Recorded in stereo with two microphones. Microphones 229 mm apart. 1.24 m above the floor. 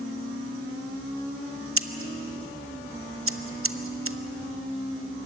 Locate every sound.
1.8 s scissors: 70° right (ahead or behind), 0.7 m